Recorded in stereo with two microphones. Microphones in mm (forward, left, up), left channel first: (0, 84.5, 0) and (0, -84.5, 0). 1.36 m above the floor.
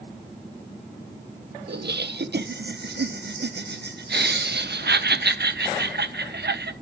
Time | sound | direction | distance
1.7 | laughter | 80° right | 0.9 m